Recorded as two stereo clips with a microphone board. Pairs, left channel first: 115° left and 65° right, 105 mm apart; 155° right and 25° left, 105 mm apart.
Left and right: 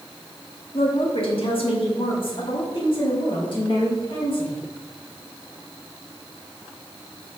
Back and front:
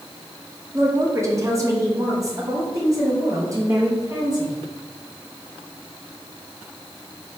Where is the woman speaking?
85° left, 1.5 m; by 4.6 s 80° left, 3.5 m.